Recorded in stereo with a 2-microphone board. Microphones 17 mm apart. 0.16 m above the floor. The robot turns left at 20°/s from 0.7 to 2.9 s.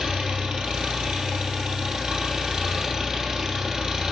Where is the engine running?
95° right, 1.8 m; by 4.1 s 140° right, 1.8 m.